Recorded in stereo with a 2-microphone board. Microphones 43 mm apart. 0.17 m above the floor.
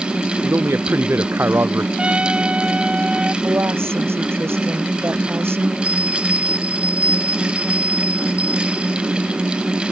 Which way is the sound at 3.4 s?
70° right (ahead or behind).